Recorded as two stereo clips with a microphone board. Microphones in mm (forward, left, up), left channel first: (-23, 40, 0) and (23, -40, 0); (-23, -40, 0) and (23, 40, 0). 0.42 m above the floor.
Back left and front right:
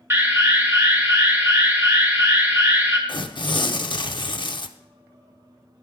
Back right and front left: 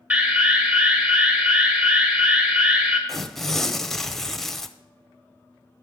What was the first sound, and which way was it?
An alarm, 5° right.